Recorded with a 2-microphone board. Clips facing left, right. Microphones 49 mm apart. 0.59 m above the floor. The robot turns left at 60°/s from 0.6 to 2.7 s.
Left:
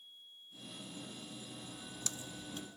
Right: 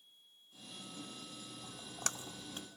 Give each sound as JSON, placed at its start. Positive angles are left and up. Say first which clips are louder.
{"t": 1.6, "sound": "a splash", "louder": "right 7 dB", "side_deg": -60}